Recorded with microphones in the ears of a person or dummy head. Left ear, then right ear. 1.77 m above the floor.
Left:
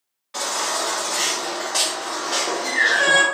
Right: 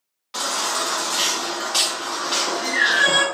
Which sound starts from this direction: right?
A baby crying, at 0.3 s.